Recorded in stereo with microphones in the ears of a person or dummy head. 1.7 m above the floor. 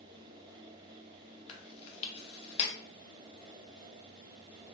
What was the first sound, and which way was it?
Chewing, 35° left (ahead or behind).